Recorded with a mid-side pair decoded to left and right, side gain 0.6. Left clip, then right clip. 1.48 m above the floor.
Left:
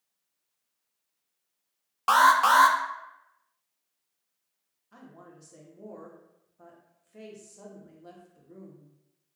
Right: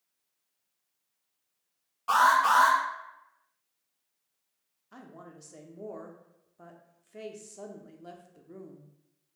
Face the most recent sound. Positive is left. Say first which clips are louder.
# right 2 dB
turn(degrees=-25)